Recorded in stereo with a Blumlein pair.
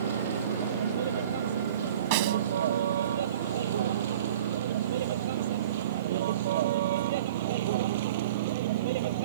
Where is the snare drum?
45° right.